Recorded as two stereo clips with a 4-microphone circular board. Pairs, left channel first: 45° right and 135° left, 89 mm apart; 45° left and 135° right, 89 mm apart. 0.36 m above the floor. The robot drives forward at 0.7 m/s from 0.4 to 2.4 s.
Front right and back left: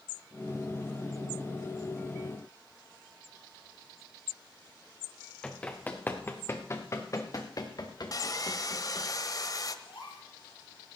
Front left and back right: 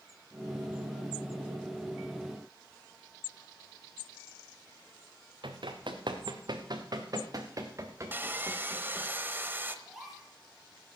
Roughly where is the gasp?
Ahead right.